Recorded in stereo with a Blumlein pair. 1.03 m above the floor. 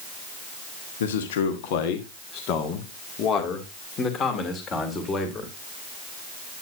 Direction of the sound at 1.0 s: 60° left.